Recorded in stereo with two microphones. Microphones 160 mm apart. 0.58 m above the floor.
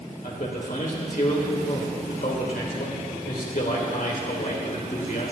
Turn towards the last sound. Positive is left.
turn(degrees=70)  # may be behind; listen again after turning